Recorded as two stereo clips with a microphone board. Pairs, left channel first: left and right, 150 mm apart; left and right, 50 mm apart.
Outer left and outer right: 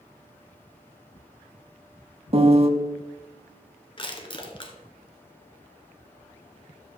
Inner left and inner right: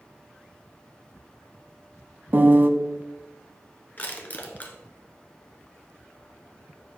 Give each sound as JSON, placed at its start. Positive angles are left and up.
{"t": 2.3, "sound": "a piano", "side_deg": -40, "distance_m": 0.6}
{"t": 4.0, "sound": "crushing", "side_deg": 35, "distance_m": 1.2}